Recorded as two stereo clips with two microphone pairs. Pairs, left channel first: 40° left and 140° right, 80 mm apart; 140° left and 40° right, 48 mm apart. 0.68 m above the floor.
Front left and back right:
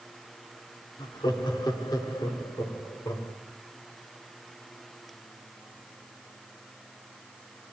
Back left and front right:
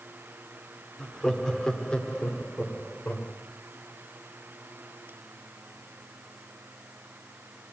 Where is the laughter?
55° left, 1.6 m; by 3.3 s 85° left, 2.5 m.